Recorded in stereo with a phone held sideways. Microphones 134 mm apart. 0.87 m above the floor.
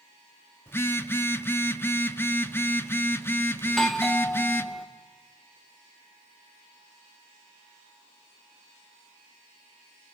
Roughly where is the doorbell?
Centre.